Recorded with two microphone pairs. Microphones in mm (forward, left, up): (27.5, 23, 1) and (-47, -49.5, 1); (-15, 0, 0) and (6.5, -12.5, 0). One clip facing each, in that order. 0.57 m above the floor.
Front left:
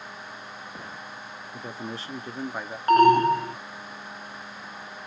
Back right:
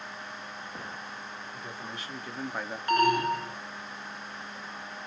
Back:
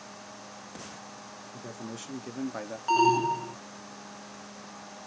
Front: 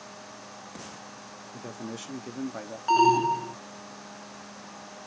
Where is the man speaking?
15° left, 1.2 m; by 2.8 s 145° left, 0.8 m.